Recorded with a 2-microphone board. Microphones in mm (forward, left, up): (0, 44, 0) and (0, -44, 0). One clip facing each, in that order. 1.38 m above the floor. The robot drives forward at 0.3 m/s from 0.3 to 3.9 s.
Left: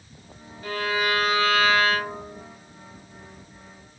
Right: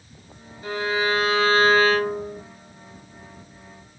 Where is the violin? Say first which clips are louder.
Right 2 dB; 25° right (ahead or behind), 1.2 m; by 2.4 s 40° right (ahead or behind), 0.7 m.